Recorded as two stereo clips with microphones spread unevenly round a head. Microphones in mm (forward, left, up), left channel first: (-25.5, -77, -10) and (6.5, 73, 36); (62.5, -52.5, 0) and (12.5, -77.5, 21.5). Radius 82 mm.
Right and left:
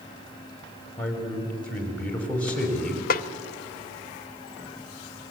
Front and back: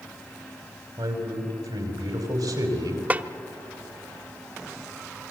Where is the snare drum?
140° right, 0.8 m.